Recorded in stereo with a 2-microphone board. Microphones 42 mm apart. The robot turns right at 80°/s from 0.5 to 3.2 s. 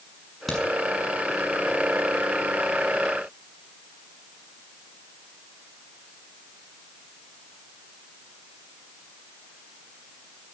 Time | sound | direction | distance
0.5 | a crack | 5° left (ahead or behind) | 6.5 m